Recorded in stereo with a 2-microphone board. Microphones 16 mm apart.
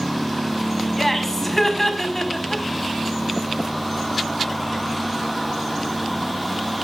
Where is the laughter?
20° left (ahead or behind), 5 m.